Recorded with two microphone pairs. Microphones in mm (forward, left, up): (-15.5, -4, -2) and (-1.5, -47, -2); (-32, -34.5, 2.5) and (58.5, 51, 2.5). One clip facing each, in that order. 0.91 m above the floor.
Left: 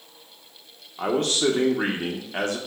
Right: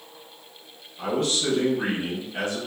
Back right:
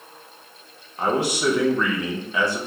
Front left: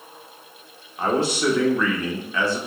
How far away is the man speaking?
About 0.8 m.